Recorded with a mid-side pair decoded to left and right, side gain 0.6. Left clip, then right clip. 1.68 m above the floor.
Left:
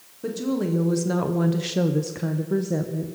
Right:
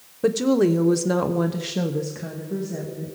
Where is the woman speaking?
50° right, 1.2 m; by 3.1 s 50° left, 1.6 m.